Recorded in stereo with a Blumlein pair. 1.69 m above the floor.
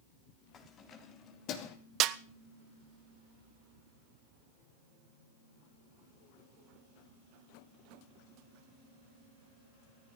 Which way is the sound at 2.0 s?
35° right.